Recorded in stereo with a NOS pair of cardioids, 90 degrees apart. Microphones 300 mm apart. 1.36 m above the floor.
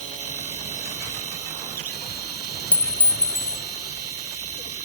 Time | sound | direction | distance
0.0 | a machine running | 55° right | ?
2.7 | a clink | 20° left | ?